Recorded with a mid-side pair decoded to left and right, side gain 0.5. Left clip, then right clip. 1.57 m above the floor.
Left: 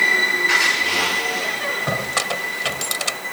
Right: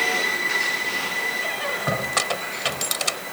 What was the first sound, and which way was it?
A squeak, straight ahead.